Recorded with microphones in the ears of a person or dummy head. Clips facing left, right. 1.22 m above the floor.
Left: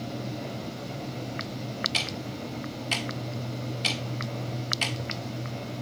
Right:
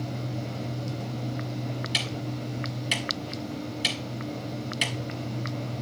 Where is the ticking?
15° right (ahead or behind), 1.6 m.